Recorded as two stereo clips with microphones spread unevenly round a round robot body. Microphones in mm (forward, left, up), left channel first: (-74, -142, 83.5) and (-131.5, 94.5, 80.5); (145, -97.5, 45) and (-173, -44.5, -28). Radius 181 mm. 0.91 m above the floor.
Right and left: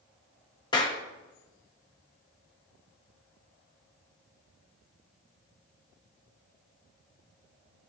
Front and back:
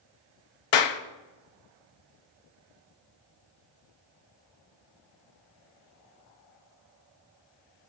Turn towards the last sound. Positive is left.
turn(degrees=0)